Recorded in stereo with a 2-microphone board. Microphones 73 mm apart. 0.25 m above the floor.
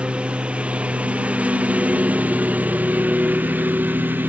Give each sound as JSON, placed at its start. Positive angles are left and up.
{"t": 0.0, "sound": "a lawn mower", "side_deg": -15}